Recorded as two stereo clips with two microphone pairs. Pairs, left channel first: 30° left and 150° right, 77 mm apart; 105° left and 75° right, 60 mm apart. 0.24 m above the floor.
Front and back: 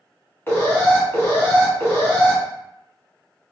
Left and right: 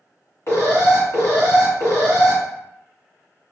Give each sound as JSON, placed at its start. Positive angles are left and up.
{"t": 0.5, "sound": "an alarm", "azimuth_deg": 85, "distance_m": 1.4}